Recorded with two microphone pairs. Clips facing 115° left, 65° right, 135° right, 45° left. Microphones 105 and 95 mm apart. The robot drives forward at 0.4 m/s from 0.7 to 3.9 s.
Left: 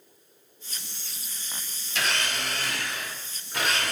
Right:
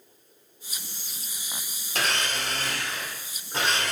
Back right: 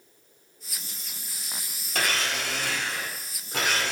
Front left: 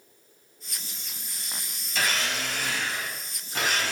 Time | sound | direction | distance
1.9 | a blender | 105° right | 1.7 m